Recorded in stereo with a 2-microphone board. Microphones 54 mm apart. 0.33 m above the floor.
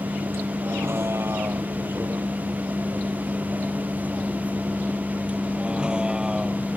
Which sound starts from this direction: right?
A vehicle, at 0.0 s.